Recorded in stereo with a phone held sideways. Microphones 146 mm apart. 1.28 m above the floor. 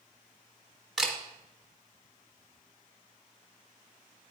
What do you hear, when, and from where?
1.0 s a camera shutter: 5° right (ahead or behind), 1.0 m